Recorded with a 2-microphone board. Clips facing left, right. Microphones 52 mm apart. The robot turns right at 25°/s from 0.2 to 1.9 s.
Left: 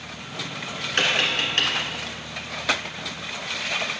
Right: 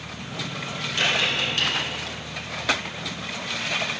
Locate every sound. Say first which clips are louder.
1.0 s tapping: left 1 dB; 65° left (ahead or behind), 1.9 m; by 1.7 s 50° left (ahead or behind), 1.9 m